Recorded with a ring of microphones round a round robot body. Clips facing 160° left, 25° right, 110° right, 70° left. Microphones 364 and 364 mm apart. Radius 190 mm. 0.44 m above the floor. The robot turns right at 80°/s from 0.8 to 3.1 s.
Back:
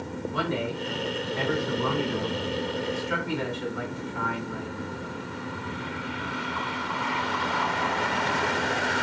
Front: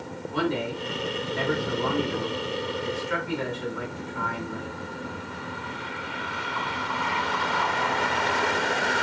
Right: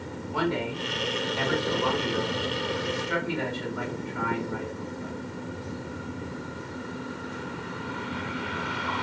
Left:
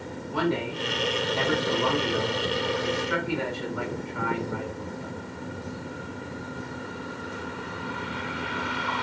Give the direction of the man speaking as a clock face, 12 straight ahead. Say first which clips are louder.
Front 4 dB, left 1 dB; 12 o'clock.